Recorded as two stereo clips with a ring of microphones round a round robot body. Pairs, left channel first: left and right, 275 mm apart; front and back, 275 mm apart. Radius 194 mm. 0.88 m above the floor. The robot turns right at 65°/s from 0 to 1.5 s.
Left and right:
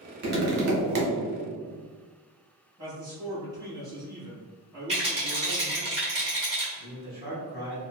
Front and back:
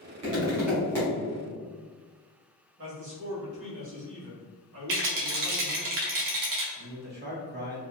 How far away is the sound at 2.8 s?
About 1.3 m.